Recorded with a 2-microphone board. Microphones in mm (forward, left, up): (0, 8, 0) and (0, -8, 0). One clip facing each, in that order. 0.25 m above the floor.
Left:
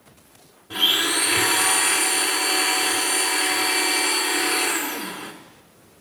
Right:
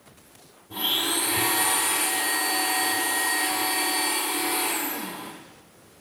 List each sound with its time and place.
0.7 s a blender: 65° left (ahead or behind), 1.4 m